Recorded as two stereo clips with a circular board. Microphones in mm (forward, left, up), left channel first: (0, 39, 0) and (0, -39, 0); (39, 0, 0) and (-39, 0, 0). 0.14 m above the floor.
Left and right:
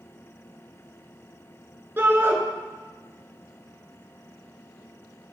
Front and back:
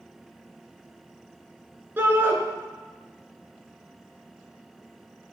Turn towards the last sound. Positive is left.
turn(degrees=-135)